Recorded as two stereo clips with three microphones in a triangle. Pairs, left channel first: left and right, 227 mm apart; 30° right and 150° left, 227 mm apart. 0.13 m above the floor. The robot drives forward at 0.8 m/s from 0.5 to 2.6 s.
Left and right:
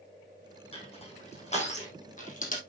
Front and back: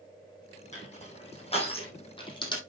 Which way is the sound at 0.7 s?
25° left.